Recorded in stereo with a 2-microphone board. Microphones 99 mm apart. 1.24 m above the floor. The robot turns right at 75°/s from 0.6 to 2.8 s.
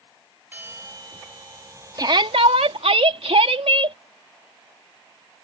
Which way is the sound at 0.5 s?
160° right.